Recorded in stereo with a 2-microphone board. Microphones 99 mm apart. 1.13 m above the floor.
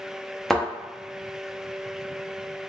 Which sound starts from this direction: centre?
A thud, at 0.5 s.